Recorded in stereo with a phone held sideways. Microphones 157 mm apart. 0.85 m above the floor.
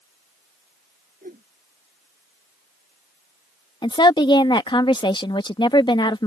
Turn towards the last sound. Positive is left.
turn(degrees=30)  # may be behind; listen again after turning